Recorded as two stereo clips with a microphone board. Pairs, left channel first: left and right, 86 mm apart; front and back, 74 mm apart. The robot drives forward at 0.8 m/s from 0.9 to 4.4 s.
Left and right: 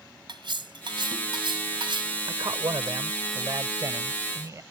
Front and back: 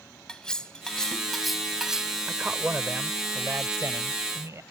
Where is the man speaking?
110° right; by 4.6 s 140° right.